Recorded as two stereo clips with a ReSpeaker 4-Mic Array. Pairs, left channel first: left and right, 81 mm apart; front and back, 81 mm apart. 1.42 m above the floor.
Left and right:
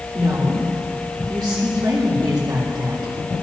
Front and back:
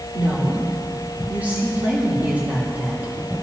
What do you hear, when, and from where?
0.1 s a woman speaking: 110° right, 3.5 m